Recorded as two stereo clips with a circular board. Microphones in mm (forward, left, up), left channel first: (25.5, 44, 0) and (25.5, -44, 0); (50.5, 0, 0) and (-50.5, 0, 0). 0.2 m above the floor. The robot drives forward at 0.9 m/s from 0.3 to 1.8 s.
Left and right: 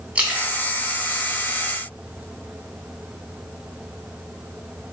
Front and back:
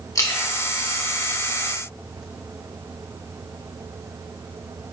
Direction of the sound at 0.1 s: 25° right.